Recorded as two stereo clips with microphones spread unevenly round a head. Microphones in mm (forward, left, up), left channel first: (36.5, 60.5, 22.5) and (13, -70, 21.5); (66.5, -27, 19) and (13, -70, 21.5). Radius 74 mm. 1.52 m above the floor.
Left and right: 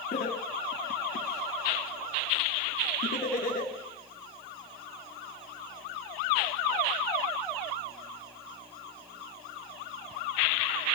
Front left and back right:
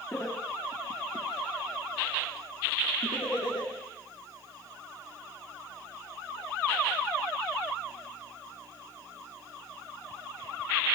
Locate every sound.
0.1 s laughter: 115° left, 2.5 m; by 3.7 s 60° left, 3.5 m